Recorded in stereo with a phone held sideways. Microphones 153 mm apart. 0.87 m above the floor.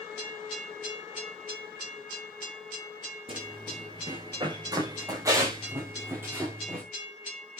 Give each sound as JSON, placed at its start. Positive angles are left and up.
{"t": 3.3, "sound": "running footsteps", "side_deg": -35, "distance_m": 6.0}